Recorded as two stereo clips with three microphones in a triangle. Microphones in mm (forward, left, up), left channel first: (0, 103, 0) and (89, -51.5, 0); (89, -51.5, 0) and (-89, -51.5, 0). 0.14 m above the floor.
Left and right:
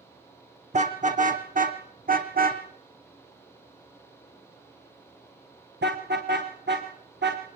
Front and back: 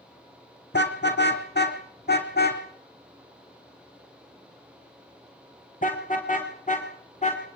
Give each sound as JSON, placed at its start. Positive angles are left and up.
{"t": 0.7, "sound": "a car horn", "azimuth_deg": -10, "distance_m": 3.5}